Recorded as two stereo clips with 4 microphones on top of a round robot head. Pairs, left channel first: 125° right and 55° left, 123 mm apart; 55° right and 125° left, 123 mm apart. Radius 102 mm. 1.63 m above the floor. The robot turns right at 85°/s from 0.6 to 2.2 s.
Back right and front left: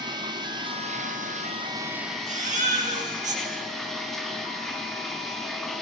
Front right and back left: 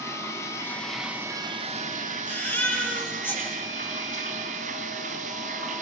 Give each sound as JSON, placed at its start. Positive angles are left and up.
{"t": 0.0, "sound": "running water", "azimuth_deg": 10, "distance_m": 1.7}
{"t": 2.3, "sound": "a baby crying", "azimuth_deg": 20, "distance_m": 9.0}